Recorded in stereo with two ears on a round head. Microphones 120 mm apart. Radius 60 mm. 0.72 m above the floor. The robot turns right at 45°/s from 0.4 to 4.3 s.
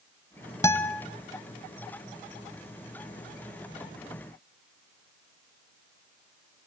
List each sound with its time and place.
0.6 s a guitar: 20° left (ahead or behind), 1.3 m; by 1.0 s 5° left (ahead or behind), 1.3 m